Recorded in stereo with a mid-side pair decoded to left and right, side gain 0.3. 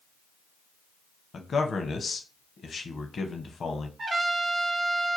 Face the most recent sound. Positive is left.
turn(degrees=-55)